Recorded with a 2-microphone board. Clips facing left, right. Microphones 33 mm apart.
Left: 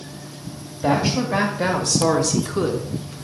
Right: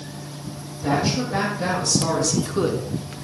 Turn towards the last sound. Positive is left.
turn(degrees=-40)  # may be behind; listen again after turning